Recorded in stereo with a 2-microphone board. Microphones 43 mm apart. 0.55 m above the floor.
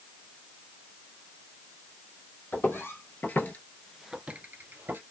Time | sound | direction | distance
2.5 | footsteps | 70° left (ahead or behind) | 1.4 m